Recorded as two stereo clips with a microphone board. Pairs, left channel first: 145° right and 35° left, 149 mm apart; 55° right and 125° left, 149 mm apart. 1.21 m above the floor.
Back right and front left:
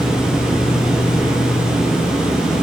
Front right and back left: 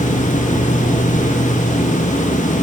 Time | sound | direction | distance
0.0 | an insect | 60° right | 1.0 m